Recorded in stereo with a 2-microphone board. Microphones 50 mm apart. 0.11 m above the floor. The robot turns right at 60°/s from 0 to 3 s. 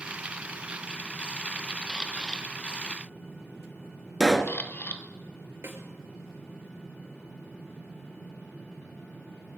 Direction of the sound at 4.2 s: 5° left (ahead or behind).